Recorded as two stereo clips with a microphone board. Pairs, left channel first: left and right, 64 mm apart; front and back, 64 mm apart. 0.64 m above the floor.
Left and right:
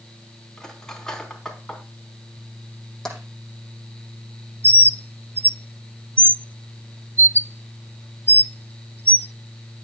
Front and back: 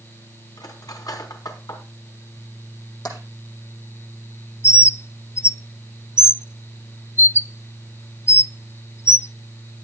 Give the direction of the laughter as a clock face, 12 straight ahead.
I don't hear laughter.